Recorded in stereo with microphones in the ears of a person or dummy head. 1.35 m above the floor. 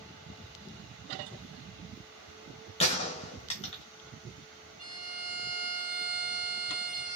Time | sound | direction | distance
2.8 | a gunshot | 30° left (ahead or behind) | 0.7 m
4.8 | a violin | 40° right (ahead or behind) | 2.0 m